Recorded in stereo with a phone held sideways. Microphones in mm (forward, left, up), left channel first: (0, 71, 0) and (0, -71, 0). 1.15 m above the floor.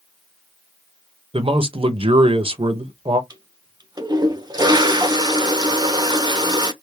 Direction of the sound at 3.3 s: 30° right (ahead or behind).